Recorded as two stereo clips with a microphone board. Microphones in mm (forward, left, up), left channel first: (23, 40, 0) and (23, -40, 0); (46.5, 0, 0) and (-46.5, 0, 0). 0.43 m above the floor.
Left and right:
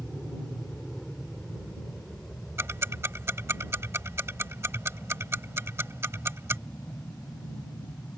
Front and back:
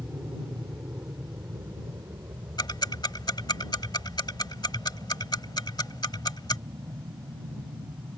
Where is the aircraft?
Straight behind; by 8.2 s 150° left.